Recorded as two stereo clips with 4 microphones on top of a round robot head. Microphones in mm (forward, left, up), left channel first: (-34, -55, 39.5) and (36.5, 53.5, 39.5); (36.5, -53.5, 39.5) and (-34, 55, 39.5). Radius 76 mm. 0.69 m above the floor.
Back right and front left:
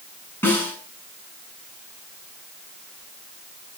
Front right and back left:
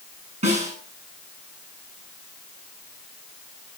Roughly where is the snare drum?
Behind.